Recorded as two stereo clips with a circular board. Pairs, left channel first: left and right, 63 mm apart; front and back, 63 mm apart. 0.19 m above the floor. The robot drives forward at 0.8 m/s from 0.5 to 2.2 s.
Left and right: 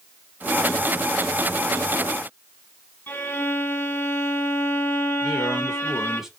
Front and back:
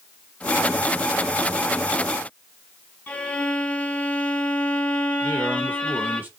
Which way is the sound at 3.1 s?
55° left.